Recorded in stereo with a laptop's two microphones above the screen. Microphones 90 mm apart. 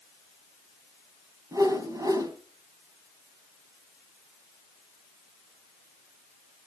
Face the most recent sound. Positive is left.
turn(degrees=-40)  # may be behind; listen again after turning